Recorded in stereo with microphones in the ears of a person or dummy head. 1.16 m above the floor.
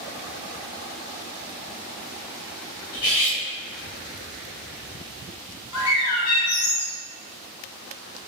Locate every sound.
2.9 s cutlery clinking: 80° left, 1.6 m
5.7 s a bird: 75° left (ahead or behind), 1.0 m